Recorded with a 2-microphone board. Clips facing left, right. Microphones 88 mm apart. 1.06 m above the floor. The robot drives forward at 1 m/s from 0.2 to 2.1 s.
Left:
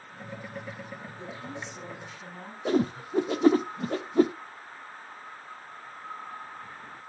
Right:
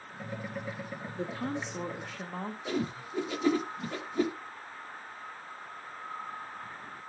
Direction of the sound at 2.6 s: 45° left (ahead or behind).